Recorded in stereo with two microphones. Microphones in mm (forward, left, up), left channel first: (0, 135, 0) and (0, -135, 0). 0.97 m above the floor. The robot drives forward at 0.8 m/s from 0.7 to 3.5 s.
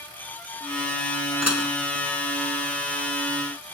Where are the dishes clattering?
70° right (ahead or behind).